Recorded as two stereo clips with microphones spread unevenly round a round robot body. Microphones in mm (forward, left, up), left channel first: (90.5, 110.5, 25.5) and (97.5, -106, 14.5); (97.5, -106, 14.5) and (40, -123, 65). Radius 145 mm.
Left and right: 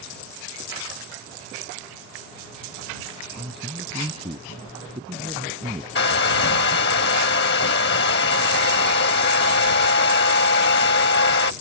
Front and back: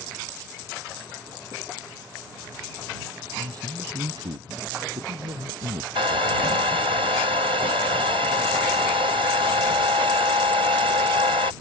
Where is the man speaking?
160° right.